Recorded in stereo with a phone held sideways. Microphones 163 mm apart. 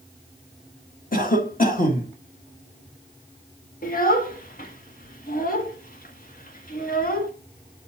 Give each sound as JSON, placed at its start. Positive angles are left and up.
{"t": 1.1, "sound": "a cough", "side_deg": 60, "distance_m": 1.8}
{"t": 3.8, "sound": "a child speaking", "side_deg": 60, "distance_m": 2.0}